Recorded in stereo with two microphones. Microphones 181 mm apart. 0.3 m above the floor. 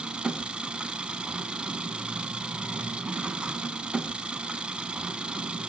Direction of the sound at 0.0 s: 5° right (ahead or behind).